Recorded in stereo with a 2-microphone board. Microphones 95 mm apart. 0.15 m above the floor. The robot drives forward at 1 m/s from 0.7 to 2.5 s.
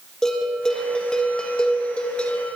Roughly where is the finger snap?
I don't hear a finger snap.